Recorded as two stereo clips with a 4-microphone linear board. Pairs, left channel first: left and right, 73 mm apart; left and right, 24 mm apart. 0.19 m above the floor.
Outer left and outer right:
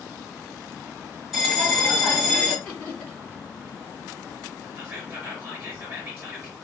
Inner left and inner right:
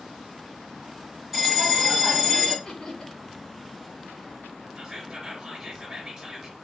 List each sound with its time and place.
1.3 s a bell: centre (ahead or behind), 1.6 m
2.6 s laughter: 20° left (ahead or behind), 1.8 m
4.8 s whispering: 30° right (ahead or behind), 3 m